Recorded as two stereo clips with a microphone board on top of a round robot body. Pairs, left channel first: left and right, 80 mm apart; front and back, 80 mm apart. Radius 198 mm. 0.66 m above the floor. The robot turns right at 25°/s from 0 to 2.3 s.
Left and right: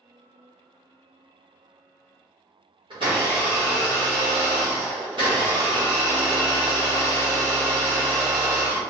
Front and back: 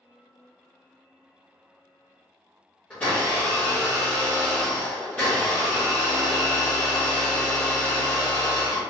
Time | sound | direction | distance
2.9 | a blender | 75° right | 0.6 m